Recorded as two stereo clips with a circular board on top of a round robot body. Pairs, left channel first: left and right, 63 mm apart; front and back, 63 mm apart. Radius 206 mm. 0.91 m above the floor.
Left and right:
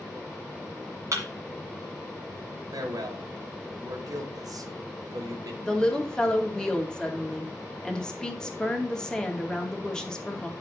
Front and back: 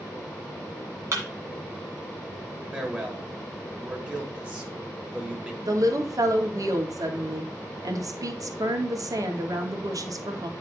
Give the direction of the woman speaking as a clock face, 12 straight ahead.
6 o'clock.